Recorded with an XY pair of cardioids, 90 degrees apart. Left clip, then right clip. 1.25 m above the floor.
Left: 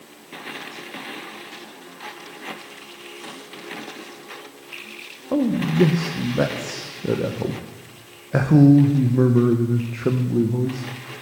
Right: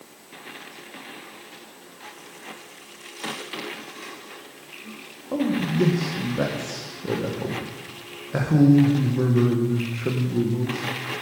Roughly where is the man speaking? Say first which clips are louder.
Left 3 dB; ahead left.